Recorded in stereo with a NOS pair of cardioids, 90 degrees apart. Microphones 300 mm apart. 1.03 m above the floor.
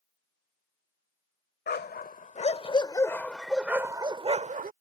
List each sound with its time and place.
1.7 s a dog barking: 35° left; by 4.7 s 30° right